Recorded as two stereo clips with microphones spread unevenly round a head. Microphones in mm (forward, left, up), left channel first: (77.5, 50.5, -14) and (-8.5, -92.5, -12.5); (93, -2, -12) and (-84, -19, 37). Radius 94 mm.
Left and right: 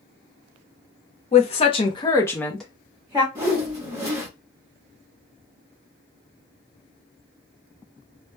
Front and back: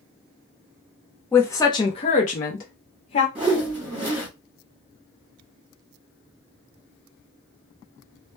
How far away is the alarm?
No alarm in this recording.